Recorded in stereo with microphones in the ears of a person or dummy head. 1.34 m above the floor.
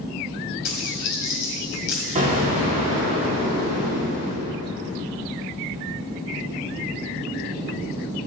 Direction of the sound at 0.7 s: 55° left (ahead or behind).